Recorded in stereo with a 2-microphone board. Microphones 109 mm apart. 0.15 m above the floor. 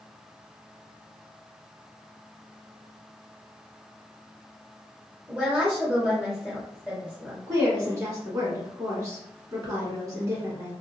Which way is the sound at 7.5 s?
30° right (ahead or behind).